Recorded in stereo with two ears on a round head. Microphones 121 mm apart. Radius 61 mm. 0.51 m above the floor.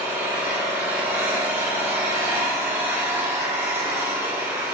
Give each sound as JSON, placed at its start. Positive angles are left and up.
{"t": 0.0, "sound": "an engine running", "side_deg": -20, "distance_m": 1.2}